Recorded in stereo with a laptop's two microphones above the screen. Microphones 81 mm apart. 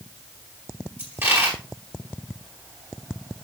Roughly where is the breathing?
I don't hear breathing.